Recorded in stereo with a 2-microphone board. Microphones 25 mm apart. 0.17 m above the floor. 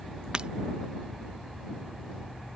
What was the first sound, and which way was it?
Breaking glass, 40° right (ahead or behind).